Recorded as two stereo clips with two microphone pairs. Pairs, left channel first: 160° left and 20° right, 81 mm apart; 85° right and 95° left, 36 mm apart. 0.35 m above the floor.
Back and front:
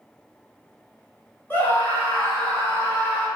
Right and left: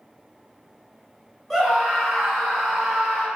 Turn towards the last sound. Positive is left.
turn(degrees=-165)